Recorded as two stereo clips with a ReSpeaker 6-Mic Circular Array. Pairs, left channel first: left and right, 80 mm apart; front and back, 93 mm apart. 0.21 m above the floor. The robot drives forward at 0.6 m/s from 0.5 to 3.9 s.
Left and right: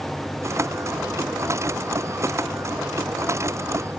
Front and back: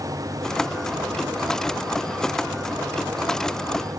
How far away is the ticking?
No ticking in this recording.